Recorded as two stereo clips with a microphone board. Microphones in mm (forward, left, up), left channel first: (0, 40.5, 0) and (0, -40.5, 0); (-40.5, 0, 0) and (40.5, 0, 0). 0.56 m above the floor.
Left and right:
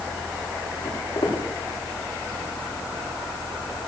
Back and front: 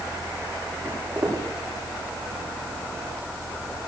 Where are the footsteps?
45° left, 9 m.